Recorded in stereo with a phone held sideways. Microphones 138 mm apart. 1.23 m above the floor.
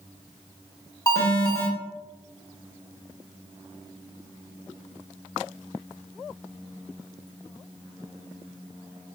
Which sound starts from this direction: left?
An alarm, at 1.1 s.